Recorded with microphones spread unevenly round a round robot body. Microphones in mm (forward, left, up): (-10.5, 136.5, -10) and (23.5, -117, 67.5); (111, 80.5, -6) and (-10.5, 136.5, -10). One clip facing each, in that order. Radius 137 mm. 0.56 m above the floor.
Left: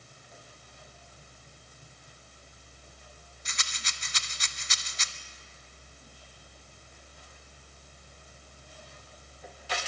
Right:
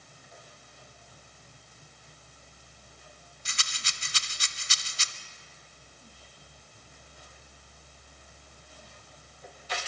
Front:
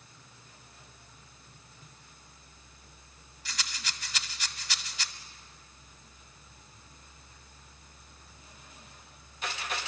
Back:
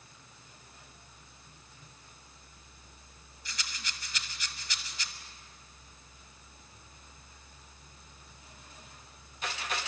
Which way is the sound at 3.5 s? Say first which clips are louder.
Even, front 3 dB; 35° right.